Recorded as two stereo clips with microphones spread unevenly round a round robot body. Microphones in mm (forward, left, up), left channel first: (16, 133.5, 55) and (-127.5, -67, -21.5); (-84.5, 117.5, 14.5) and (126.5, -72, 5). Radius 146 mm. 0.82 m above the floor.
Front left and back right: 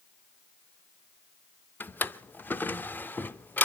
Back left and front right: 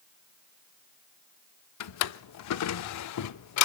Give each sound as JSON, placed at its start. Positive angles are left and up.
{"t": 1.8, "sound": "a drawer", "azimuth_deg": 125, "distance_m": 0.6}